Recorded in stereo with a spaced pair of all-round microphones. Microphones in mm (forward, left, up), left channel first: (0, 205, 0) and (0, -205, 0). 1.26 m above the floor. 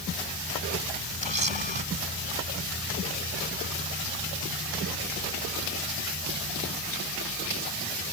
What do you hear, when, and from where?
1.2 s a camera shutter: 90° right